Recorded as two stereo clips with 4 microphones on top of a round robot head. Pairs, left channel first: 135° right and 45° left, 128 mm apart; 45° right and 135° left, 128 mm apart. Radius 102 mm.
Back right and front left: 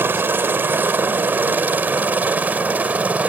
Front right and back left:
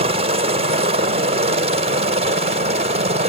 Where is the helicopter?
115° left; by 3.3 s 120° left.